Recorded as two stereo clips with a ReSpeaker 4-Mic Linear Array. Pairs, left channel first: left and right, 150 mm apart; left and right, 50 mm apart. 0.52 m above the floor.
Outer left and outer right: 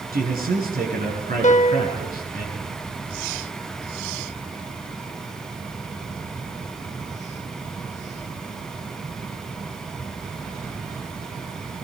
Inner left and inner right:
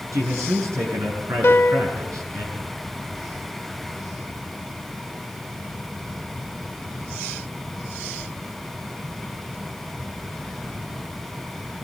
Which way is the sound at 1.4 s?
55° left (ahead or behind).